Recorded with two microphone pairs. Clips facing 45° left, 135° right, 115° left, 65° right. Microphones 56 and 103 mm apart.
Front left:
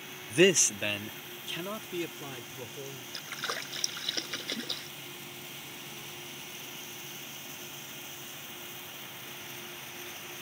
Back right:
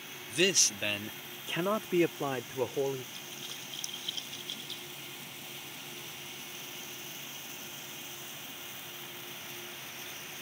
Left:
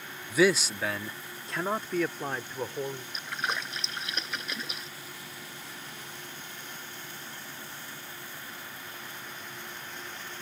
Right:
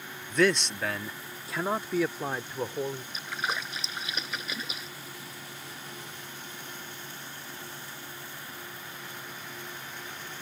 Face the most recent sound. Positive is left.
turn(degrees=25)